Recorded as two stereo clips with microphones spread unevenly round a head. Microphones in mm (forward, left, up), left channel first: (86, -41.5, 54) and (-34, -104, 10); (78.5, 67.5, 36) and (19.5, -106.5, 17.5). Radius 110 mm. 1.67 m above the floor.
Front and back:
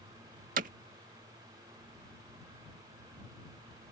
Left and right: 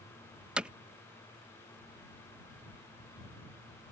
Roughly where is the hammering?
Behind.